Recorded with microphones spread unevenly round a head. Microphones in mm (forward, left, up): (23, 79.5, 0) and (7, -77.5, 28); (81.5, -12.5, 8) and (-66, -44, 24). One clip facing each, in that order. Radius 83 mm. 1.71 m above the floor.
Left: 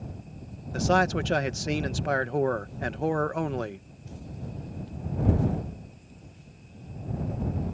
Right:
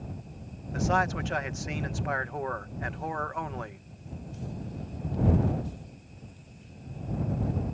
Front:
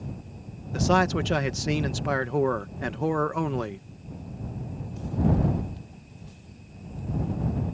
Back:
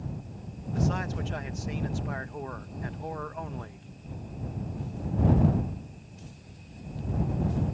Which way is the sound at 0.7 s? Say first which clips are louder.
Left 4 dB, front 8 dB; 35° left.